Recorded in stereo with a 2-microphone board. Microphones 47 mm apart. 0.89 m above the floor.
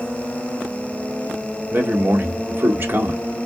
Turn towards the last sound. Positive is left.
turn(degrees=-45)  # may be behind; listen again after turning